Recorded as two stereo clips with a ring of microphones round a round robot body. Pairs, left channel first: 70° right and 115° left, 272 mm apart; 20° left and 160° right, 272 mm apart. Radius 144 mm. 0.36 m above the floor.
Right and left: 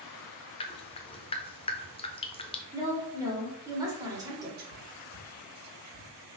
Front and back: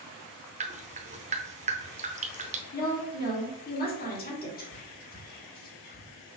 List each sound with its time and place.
0.6 s dripping: 120° right, 0.7 m
2.7 s a woman speaking: 45° left, 1.6 m
4.6 s whispering: 70° left, 1.6 m